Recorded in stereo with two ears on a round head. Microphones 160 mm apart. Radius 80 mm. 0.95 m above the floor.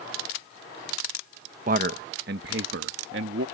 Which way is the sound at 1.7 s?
45° right (ahead or behind).